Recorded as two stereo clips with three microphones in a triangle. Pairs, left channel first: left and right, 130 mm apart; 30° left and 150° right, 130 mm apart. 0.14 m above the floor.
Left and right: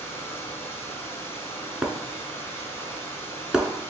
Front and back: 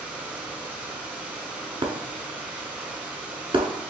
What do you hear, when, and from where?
0.0 s running water: 140° left, 0.8 m
1.8 s breaking glass: 170° right, 0.6 m